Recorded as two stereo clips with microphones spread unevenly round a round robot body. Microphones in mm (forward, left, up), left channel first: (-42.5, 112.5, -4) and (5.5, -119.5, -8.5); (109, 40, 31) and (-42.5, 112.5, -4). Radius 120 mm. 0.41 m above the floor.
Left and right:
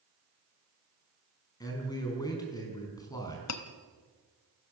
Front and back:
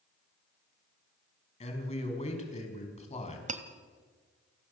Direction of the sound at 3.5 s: 115° left.